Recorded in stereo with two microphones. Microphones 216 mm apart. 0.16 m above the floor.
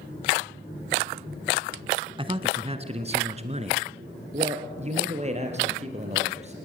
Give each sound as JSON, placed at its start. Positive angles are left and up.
{"t": 2.2, "sound": "a man speaking", "side_deg": -25, "distance_m": 1.2}